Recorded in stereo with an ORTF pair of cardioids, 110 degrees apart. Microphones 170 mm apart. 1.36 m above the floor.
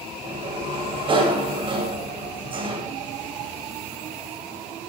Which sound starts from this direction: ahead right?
A sliding door, at 0.2 s.